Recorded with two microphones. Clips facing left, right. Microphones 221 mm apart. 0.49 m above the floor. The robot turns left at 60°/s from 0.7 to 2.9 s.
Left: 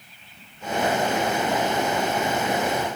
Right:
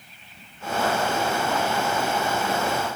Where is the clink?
No clink in this recording.